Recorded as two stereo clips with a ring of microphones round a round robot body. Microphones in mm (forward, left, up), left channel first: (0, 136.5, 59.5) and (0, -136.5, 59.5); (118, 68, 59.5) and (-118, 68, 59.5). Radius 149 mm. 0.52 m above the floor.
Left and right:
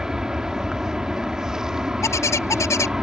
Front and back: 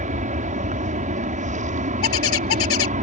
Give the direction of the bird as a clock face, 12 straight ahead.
12 o'clock.